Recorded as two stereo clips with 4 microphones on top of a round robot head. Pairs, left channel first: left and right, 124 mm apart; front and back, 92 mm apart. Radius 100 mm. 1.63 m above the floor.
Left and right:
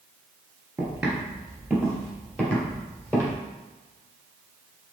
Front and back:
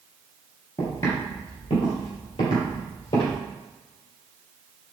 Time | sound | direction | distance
0.8 | footsteps | 25° right | 1.9 m